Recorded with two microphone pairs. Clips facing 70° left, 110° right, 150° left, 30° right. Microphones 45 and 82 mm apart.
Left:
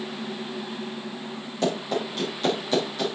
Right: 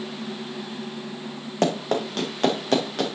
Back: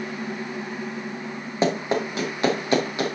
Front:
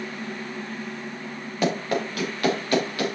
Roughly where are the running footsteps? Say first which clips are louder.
Right 3 dB, back 2 dB; behind right.